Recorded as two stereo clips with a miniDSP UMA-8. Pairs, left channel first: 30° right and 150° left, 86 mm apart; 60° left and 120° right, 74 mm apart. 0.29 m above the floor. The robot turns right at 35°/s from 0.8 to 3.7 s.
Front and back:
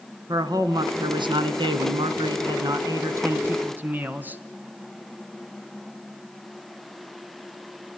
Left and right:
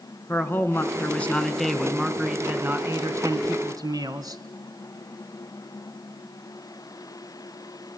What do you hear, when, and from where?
0.3 s a man speaking: 115° left, 2.5 m; by 4.4 s 140° right, 2.5 m